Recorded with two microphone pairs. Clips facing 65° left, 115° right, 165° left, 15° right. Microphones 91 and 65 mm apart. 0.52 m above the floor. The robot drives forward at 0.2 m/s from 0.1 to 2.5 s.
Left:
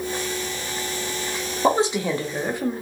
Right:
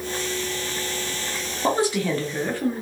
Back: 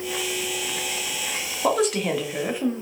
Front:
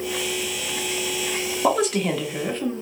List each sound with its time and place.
1.6 s a woman speaking: 80° left, 0.7 m; by 2.8 s 110° left, 0.7 m